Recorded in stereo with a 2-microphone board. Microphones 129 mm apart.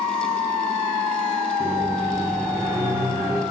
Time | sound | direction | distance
1.6 | a microwave | 15° right (ahead or behind) | 2.5 m